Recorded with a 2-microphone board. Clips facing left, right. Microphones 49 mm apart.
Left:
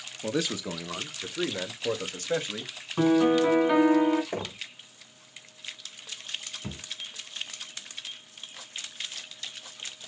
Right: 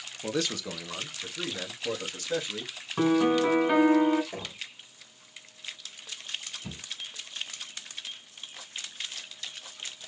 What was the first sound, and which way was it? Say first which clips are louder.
A man speaking: left 1 dB; 5° left (ahead or behind).